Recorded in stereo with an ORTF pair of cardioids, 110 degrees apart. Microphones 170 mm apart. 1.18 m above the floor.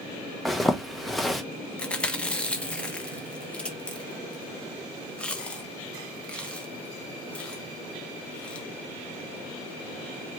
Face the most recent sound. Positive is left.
turn(degrees=5)